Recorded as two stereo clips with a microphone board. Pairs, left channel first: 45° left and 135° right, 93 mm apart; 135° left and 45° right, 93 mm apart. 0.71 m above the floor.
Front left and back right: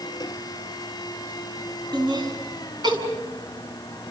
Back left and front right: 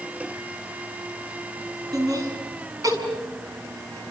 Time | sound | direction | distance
1.9 | laughter | 95° right | 7 m